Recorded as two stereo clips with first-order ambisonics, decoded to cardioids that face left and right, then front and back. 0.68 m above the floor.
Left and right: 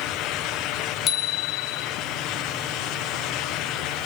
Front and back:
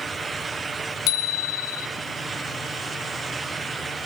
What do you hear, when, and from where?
1.1 s a bicycle bell: 30° left, 2 m